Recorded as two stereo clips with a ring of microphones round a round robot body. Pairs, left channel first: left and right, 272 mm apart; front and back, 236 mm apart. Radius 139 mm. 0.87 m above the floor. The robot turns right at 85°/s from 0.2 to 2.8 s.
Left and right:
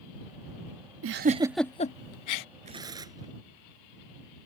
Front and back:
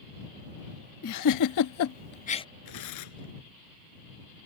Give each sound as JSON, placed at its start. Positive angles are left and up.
{"t": 1.0, "sound": "a giggle", "azimuth_deg": -45}
{"t": 2.6, "sound": "tearing paper", "azimuth_deg": -25}